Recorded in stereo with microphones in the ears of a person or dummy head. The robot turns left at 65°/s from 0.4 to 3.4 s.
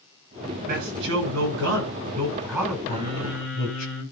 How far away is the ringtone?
No ringtone in this recording.